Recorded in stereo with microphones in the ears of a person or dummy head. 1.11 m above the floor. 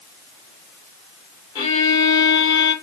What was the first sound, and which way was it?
A violin, 25° left (ahead or behind).